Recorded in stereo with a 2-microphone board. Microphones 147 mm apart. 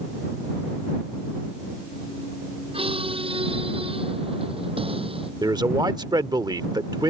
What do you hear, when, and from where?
2.7 s a squeak: 40° right (ahead or behind)
5.4 s a man speaking: 25° right (ahead or behind)